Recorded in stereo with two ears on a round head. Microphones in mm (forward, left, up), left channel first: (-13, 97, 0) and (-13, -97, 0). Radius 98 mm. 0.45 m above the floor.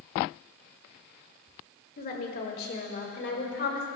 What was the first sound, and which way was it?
A woman speaking, 40° left (ahead or behind).